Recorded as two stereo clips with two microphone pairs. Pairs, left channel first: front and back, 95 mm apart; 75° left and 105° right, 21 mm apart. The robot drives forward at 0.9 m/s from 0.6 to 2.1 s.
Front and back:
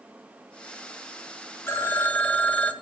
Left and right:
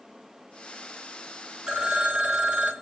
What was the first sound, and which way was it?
A phone ringing, 60° right.